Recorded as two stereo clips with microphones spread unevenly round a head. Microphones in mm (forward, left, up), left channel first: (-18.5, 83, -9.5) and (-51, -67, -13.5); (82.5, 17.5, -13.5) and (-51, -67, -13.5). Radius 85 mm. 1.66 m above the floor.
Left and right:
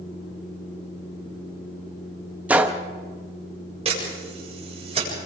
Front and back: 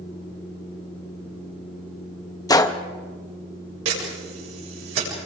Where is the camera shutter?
155° right, 8 m.